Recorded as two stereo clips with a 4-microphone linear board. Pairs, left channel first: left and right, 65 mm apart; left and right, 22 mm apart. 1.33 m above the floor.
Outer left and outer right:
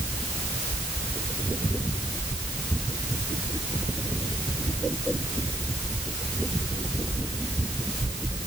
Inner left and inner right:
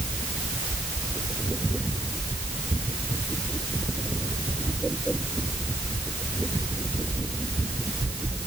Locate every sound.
Only background noise.